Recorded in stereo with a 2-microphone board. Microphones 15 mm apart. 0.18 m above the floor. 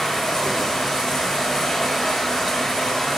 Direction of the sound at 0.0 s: 50° left (ahead or behind).